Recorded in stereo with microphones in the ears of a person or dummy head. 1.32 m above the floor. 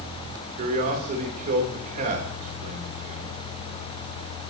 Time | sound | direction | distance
0.6 | a man speaking | 45° right (ahead or behind) | 3.5 m